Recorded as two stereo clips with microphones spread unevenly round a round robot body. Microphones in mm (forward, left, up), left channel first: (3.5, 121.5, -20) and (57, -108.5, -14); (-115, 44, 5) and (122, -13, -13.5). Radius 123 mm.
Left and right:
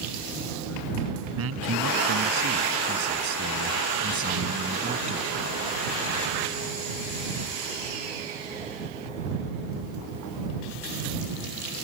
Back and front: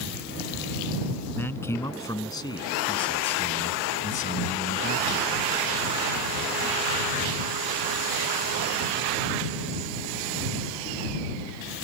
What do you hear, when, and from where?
1.4 s a man speaking: 110° right; by 5.3 s 145° right